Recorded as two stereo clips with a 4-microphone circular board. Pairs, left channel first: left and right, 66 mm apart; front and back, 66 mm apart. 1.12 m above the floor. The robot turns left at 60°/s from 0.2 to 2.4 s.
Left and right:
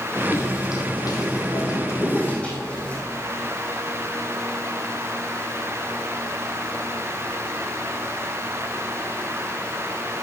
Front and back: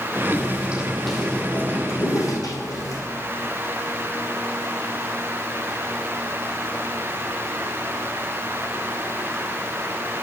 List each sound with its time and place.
0.3 s footsteps: 130° left, 2.5 m; by 3.0 s 20° left, 4 m